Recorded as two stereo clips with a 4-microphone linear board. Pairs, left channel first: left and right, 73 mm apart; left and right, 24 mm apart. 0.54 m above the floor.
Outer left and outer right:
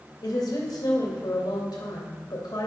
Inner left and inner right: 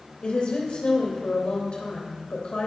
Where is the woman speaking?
65° left (ahead or behind), 2.5 m.